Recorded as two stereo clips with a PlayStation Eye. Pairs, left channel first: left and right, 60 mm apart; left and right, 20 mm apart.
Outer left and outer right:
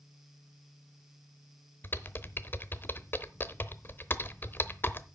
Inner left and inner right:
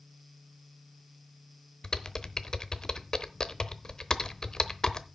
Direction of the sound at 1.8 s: 35° left (ahead or behind).